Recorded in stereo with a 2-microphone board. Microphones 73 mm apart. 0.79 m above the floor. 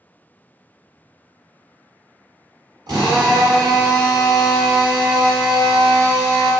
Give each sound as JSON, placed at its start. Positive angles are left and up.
{"t": 2.9, "sound": "a drill", "side_deg": -75, "distance_m": 1.5}